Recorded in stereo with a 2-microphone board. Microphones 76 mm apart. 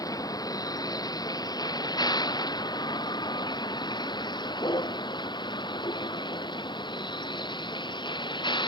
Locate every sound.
0.0 s a vehicle: 55° left (ahead or behind); by 8.7 s 80° left